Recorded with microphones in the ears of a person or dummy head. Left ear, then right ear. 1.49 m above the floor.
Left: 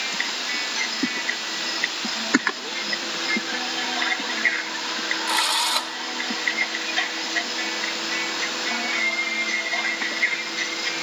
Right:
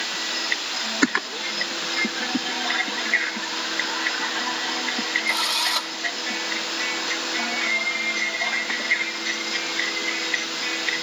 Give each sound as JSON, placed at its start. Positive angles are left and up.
{"t": 5.3, "sound": "a drill", "side_deg": 25}